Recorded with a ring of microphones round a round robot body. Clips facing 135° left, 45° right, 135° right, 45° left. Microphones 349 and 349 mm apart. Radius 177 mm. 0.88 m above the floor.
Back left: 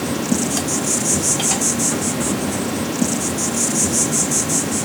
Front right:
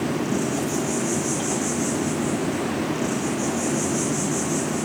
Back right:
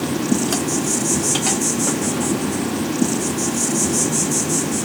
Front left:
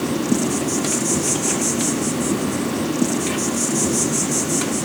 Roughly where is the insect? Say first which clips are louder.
Back left 3 dB, even; behind left.